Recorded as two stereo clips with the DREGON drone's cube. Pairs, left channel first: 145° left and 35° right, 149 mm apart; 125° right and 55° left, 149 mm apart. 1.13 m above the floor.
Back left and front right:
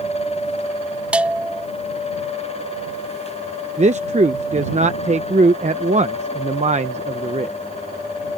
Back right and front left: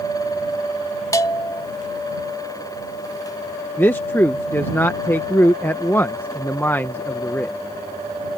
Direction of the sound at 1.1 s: 105° right.